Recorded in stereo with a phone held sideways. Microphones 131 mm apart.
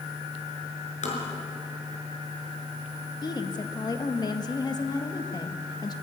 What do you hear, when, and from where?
1.0 s tapping: 65° left (ahead or behind), 5.5 m
3.2 s a woman speaking: 30° left (ahead or behind), 1.6 m